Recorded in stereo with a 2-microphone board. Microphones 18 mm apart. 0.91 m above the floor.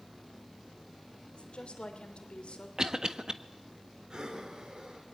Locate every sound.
1.3 s a woman speaking: 80° left, 3 m
2.8 s a cough: 45° right (ahead or behind), 1.4 m
4.1 s breathing: 45° right (ahead or behind), 3 m